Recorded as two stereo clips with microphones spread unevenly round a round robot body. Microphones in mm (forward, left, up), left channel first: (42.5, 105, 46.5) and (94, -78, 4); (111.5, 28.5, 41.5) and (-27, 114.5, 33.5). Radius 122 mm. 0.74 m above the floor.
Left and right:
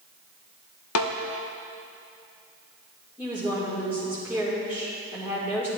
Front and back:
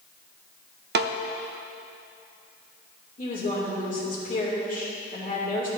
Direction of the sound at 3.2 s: 5° left.